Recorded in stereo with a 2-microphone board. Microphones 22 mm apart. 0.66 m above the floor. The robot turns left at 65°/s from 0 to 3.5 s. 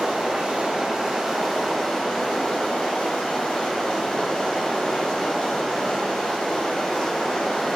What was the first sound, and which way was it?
Running water, 80° right.